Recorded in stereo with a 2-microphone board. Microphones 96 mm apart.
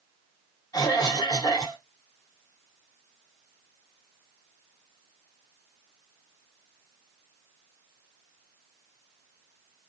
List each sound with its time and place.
0.7 s a cough: 40° left (ahead or behind), 0.9 m